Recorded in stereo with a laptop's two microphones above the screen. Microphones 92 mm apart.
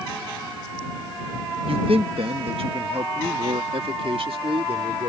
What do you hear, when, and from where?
1.7 s a man speaking: 70° right (ahead or behind); by 5.1 s 75° right (ahead or behind)